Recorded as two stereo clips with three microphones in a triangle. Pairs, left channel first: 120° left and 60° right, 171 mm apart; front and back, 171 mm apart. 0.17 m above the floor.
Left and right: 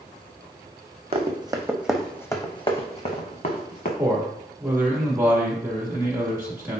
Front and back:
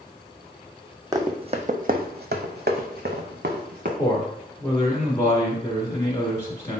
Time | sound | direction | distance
1.1 | running footsteps | 110° right | 0.7 m
4.0 | a man speaking | 30° right | 1.0 m